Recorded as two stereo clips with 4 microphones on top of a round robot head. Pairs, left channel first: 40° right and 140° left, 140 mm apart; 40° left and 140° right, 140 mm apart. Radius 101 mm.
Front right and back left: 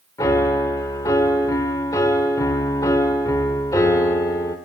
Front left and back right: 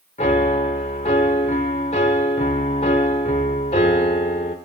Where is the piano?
20° left, 0.9 m.